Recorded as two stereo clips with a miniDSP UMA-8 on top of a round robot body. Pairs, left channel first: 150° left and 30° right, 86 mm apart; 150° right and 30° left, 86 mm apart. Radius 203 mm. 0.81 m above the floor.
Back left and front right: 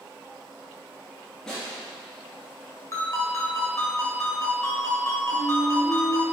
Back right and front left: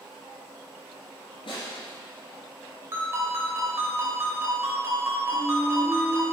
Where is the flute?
110° left, 2.5 m.